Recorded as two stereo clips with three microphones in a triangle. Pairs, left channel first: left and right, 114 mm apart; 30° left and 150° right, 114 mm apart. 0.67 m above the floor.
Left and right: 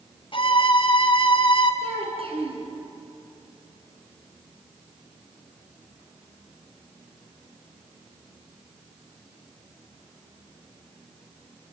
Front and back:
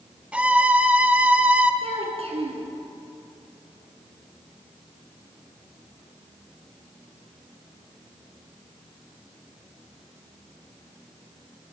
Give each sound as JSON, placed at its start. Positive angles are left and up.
{"t": 0.3, "sound": "a violin", "azimuth_deg": 130, "distance_m": 2.0}
{"t": 1.8, "sound": "a child speaking", "azimuth_deg": -120, "distance_m": 6.0}